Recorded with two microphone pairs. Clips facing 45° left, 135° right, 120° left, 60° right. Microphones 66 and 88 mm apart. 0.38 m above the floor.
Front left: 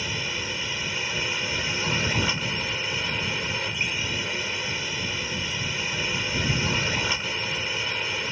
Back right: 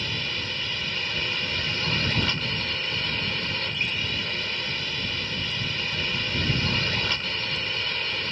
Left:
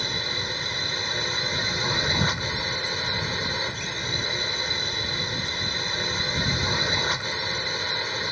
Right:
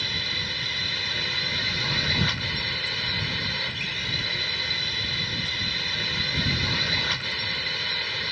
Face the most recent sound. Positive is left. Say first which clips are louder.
# front left 1 dB, left 3 dB
turn(degrees=110)